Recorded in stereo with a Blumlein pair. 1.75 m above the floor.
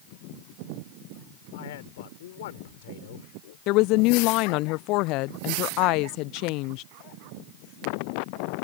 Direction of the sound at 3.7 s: 40° left.